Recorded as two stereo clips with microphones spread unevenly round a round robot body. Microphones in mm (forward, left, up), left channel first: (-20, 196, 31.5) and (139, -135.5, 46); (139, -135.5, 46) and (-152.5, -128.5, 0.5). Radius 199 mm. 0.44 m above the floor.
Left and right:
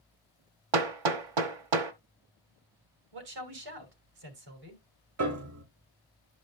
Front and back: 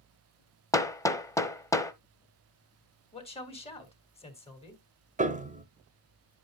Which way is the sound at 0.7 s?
85° right.